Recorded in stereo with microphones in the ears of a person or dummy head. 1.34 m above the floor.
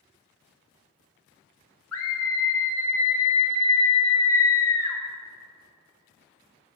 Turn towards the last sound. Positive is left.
turn(degrees=75)  # may be behind; listen again after turning